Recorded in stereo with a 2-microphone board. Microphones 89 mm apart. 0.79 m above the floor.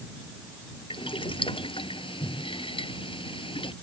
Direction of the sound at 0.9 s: 75° left (ahead or behind).